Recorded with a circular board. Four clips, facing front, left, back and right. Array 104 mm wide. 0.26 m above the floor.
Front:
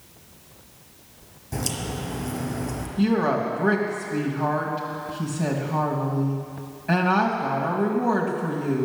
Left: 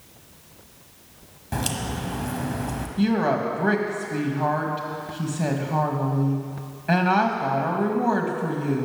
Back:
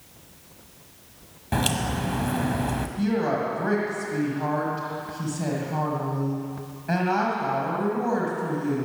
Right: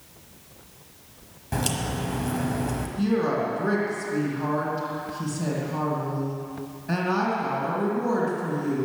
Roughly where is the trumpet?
No trumpet in this recording.